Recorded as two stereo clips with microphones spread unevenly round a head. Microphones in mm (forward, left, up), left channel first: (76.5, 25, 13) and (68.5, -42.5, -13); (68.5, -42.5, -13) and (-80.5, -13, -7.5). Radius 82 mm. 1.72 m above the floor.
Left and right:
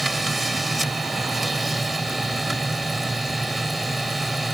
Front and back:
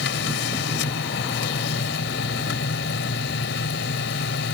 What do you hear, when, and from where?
0.0 s a machine running: straight ahead